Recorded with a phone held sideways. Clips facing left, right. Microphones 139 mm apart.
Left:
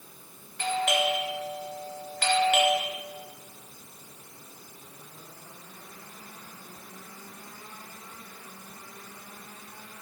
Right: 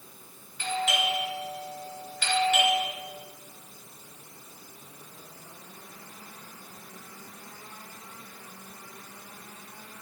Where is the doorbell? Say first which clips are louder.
Left 3 dB; 70° left (ahead or behind), 3 m.